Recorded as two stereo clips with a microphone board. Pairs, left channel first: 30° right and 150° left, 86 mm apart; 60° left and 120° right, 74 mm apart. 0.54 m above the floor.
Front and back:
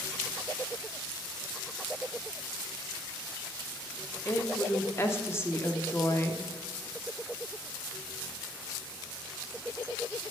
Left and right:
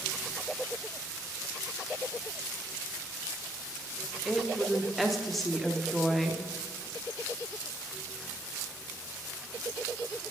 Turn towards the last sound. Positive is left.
turn(degrees=-25)